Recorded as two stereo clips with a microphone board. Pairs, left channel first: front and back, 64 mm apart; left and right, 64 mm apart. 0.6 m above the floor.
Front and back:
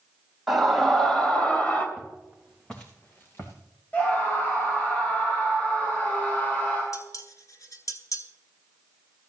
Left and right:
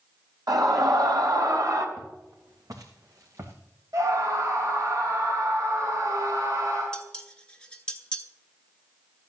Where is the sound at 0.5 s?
90° right, 3.5 m; by 1.9 s 60° right, 3 m.